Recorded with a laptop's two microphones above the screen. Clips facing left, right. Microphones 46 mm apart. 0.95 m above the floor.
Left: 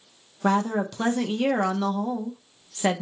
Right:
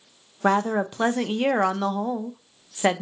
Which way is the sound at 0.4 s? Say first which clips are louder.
Right 2 dB; 20° right (ahead or behind).